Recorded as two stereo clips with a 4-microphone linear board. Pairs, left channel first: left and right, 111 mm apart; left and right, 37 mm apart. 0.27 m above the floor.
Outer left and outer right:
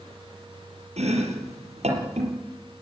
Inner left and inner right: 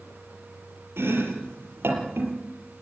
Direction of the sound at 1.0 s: 80° right.